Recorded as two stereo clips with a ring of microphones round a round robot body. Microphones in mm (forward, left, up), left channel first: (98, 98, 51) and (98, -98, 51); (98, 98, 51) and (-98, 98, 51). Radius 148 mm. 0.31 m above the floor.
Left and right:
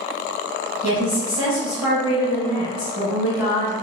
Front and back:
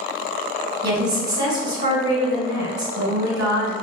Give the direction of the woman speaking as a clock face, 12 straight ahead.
5 o'clock.